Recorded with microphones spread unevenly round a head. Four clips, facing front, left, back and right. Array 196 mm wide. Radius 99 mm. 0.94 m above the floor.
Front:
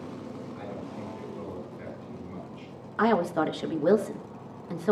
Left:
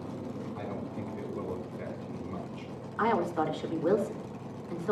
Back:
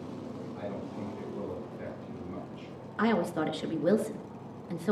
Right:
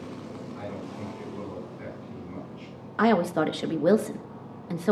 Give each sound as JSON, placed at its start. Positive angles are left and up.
{"t": 0.6, "sound": "a man speaking", "azimuth_deg": 130, "distance_m": 7.5}
{"t": 3.0, "sound": "a woman speaking", "azimuth_deg": -75, "distance_m": 1.5}